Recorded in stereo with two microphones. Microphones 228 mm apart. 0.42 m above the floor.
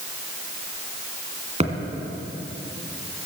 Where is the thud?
30° right (ahead or behind), 2.5 m.